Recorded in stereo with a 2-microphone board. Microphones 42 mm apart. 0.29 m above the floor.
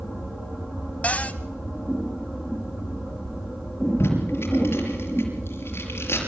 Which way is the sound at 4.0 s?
75° left (ahead or behind).